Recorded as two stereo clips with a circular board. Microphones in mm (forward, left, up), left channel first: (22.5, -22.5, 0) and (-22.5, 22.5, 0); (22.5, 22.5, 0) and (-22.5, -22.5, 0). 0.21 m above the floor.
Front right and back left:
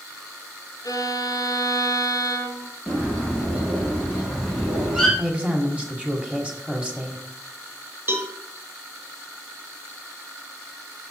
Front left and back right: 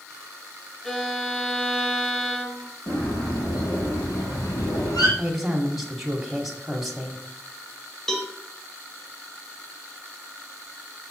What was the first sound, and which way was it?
A violin, 35° right.